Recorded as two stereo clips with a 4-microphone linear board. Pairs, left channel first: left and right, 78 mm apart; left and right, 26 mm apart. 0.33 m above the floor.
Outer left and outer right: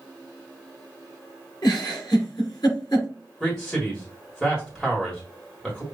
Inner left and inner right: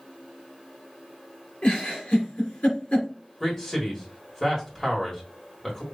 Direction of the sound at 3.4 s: 5° left (ahead or behind).